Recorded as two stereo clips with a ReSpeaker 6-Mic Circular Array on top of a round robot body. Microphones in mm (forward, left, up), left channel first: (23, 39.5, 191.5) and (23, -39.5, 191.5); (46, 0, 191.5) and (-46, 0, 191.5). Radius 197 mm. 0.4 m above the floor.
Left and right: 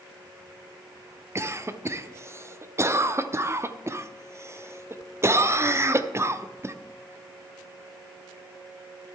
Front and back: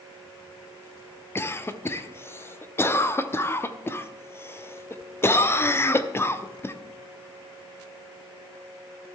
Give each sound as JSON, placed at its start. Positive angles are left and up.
{"t": 1.4, "sound": "a cough", "azimuth_deg": -50, "distance_m": 1.1}